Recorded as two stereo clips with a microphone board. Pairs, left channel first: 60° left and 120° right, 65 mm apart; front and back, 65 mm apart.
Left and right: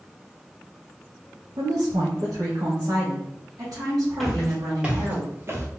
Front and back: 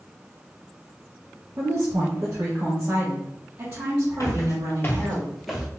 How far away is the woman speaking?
About 0.8 m.